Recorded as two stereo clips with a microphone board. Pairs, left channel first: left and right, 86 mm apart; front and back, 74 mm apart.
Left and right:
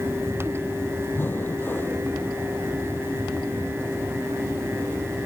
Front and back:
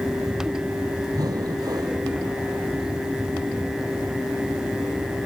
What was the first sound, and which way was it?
Breathing, 155° left.